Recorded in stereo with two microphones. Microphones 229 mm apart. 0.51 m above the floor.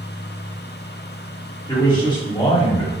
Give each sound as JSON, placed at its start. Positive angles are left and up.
{"t": 1.7, "sound": "a man speaking", "side_deg": 20, "distance_m": 1.1}